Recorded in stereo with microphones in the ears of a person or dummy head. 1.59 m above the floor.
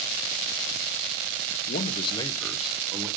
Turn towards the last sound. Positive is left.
turn(degrees=-15)  # may be behind; listen again after turning